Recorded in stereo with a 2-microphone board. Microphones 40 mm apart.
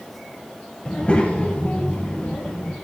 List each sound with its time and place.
0.8 s a child speaking: 25° left (ahead or behind), 1.4 m; by 2.7 s 40° left (ahead or behind), 3.5 m